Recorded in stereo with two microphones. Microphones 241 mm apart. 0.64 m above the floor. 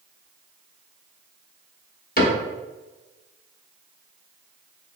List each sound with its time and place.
2.2 s a cupboard door: 40° left (ahead or behind), 0.8 m